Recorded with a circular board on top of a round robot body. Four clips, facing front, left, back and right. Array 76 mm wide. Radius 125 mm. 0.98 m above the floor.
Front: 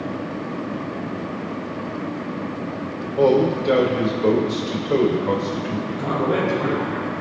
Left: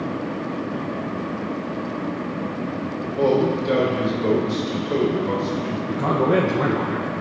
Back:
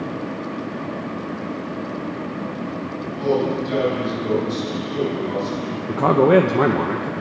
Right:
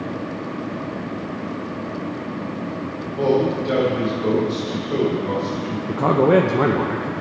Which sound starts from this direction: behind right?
A man speaking, at 5.9 s.